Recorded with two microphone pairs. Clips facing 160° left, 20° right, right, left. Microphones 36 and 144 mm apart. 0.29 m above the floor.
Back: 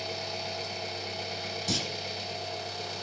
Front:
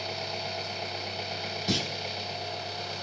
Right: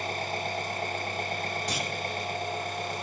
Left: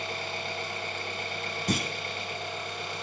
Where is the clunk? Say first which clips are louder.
Front 3 dB, left 3 dB; 45° left, 1.3 m.